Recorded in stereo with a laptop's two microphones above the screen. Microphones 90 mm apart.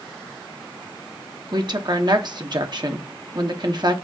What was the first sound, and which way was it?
A woman speaking, 50° right (ahead or behind).